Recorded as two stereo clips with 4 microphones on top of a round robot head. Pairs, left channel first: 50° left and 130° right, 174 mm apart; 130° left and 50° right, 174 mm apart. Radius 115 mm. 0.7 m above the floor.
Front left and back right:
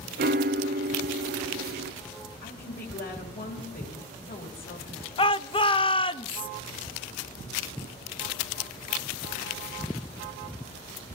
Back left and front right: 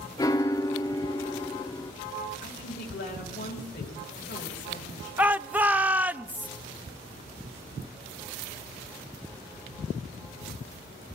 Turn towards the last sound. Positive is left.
turn(degrees=25)